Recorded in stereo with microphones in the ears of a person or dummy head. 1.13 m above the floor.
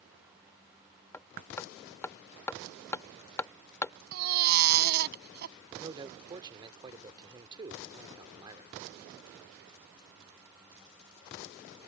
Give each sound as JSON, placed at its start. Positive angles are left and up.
{"t": 1.1, "sound": "hammering", "side_deg": 15}
{"t": 4.1, "sound": "a baby crying", "side_deg": -55}
{"t": 5.7, "sound": "a man speaking", "side_deg": -25}